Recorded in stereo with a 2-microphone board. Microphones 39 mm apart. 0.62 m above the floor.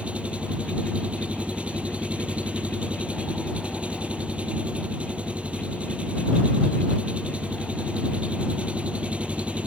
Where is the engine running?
35° right (ahead or behind).